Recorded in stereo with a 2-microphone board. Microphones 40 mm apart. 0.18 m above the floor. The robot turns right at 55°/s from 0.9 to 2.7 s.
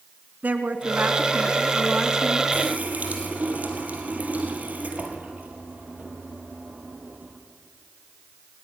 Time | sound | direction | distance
0.4 | a woman speaking | 95° right | 1.6 m
2.5 | a running tap | 50° right (ahead or behind) | 2.5 m